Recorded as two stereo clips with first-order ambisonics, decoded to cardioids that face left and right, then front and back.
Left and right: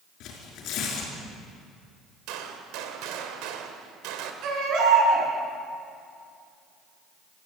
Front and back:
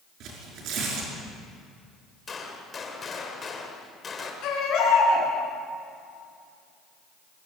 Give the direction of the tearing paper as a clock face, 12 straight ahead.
7 o'clock.